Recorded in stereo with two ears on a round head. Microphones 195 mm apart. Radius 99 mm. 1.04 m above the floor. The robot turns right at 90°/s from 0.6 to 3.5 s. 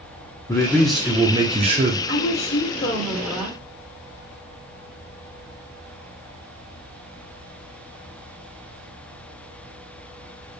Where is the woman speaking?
85° left, 1.0 m; by 3.6 s 145° right, 1.0 m.